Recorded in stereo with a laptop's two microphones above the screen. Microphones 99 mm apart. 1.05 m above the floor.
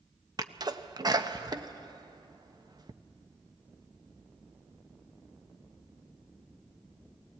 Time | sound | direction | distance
0.4 | a sneeze | 40° right (ahead or behind) | 0.9 m